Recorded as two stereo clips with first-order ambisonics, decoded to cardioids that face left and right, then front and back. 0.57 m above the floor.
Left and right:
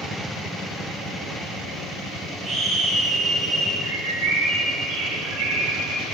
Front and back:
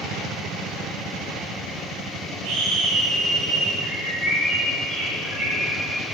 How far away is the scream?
About 3 m.